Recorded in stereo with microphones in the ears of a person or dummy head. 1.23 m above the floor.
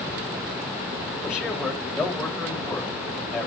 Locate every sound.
1.2 s a man speaking: 15° left (ahead or behind), 2.5 m